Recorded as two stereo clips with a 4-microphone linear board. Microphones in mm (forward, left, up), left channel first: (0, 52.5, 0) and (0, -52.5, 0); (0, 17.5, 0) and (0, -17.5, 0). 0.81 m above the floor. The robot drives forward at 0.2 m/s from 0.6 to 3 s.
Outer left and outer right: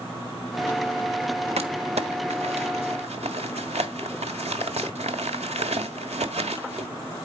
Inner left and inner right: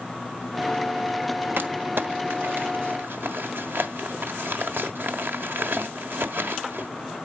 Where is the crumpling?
80° right, 1.4 m; by 6.9 s 85° right, 1.4 m.